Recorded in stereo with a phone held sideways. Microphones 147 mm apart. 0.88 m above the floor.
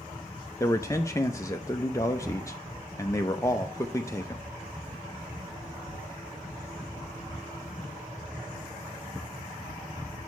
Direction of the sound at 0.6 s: 20° left (ahead or behind).